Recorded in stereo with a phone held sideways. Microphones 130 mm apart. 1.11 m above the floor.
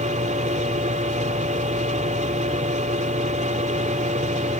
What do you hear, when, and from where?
0.0 s a machine running: 75° right (ahead or behind)